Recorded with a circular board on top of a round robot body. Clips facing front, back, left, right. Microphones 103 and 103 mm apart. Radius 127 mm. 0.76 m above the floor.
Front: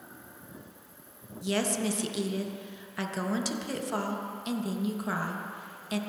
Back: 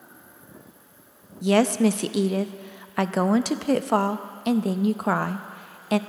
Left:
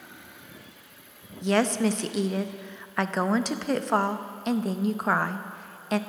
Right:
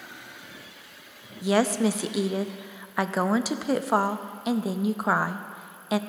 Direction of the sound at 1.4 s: 170° right.